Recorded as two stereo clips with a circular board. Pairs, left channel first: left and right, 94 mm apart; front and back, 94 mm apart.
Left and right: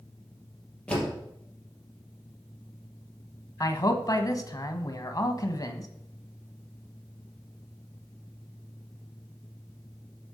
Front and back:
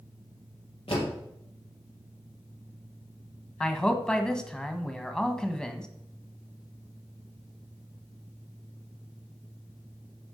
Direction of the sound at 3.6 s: 80° left.